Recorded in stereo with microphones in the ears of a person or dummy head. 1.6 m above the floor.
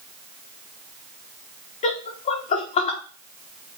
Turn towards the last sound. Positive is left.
turn(degrees=40)  # may be behind; listen again after turning